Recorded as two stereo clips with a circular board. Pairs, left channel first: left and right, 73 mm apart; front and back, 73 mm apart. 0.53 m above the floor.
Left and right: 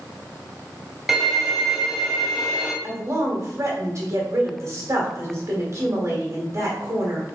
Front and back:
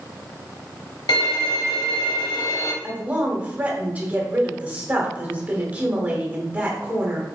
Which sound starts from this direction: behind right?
A woman speaking, at 2.8 s.